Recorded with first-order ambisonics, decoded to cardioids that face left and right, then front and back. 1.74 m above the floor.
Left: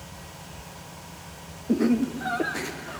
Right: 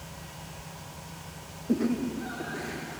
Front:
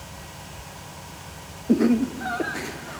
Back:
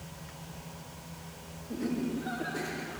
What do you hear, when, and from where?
1.7 s laughter: 10° left, 0.6 m; by 3.0 s 45° left, 2.5 m